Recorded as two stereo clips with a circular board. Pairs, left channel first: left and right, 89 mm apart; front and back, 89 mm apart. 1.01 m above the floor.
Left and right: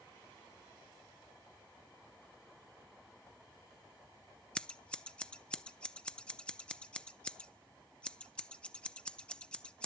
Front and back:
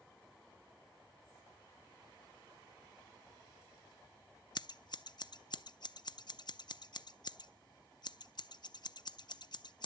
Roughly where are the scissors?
Ahead.